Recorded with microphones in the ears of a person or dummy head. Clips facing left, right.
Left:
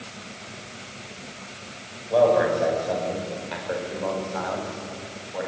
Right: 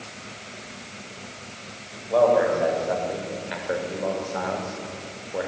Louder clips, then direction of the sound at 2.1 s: Even; centre (ahead or behind).